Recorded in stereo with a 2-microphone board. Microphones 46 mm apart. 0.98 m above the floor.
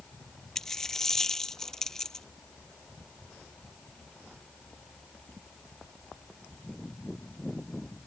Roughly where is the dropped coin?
Centre.